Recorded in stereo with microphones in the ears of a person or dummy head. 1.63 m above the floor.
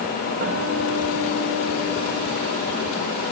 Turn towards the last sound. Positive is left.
turn(degrees=-55)  # may be behind; listen again after turning